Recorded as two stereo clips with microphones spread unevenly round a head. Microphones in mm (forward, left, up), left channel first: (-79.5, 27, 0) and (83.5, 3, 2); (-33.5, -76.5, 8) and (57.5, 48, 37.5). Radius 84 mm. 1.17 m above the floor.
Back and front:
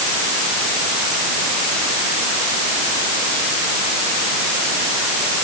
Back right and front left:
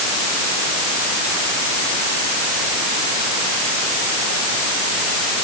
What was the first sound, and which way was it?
Only background noise.